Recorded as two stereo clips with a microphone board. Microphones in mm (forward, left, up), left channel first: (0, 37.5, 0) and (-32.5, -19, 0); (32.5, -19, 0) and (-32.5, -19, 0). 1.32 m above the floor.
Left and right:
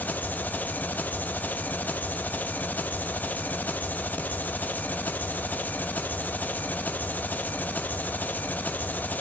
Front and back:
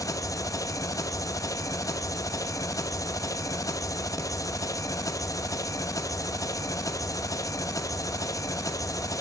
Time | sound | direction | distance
0.0 | an engine running | straight ahead | 0.9 m